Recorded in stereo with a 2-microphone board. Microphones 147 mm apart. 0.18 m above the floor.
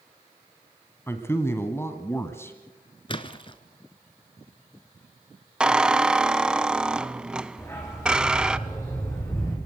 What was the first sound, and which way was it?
A man speaking, 15° left (ahead or behind).